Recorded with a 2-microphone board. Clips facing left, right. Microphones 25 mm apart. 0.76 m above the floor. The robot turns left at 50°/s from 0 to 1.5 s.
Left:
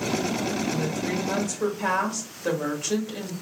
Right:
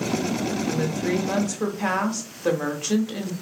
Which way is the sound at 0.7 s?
110° right.